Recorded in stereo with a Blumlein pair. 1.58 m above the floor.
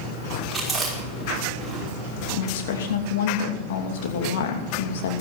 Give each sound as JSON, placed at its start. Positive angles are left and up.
{"t": 0.5, "sound": "chewing", "azimuth_deg": -10, "distance_m": 5.5}
{"t": 2.3, "sound": "a woman speaking", "azimuth_deg": 55, "distance_m": 2.5}